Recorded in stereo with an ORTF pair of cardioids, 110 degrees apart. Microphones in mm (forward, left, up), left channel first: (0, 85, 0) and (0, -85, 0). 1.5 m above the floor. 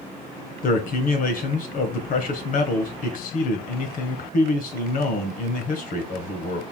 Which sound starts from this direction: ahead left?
A man speaking, at 0.6 s.